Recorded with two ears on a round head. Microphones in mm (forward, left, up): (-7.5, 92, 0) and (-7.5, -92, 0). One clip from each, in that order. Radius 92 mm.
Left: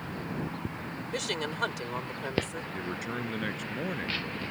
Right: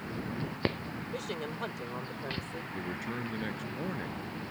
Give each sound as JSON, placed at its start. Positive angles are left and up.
{"t": 1.1, "sound": "a woman speaking", "side_deg": 60}
{"t": 2.7, "sound": "a man speaking", "side_deg": 30}